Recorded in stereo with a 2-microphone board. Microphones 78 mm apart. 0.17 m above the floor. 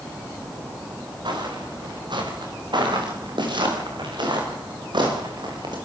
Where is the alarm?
No alarm in this recording.